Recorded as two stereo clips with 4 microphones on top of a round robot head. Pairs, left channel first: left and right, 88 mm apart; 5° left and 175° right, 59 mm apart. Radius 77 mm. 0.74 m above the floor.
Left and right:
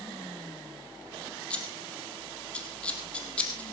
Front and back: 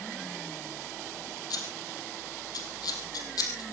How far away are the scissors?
About 4 m.